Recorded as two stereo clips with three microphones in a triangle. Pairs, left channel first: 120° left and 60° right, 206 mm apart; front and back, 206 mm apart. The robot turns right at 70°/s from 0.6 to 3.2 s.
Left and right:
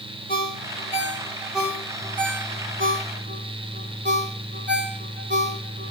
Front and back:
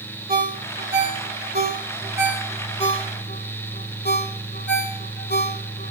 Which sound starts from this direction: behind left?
A ringtone, at 0.3 s.